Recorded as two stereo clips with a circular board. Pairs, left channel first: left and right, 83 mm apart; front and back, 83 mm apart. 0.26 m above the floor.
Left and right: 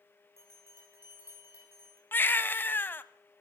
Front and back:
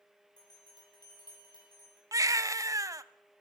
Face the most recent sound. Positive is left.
turn(degrees=150)